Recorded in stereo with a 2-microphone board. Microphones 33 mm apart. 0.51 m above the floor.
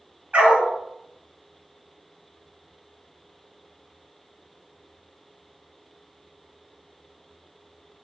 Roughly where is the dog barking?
Right.